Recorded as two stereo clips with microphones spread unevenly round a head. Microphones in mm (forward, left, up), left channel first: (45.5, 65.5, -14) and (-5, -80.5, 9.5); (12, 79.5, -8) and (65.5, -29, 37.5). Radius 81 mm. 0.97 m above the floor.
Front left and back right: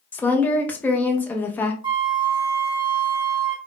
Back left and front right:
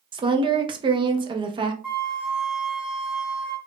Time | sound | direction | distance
0.1 | a woman speaking | 5° right | 0.7 m
1.8 | a flute | 105° right | 0.8 m